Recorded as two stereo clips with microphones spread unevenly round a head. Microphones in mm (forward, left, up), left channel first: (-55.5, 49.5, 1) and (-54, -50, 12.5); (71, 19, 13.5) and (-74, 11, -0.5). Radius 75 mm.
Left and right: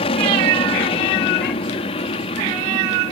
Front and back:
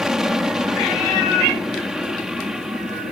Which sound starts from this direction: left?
An aircraft, at 0.0 s.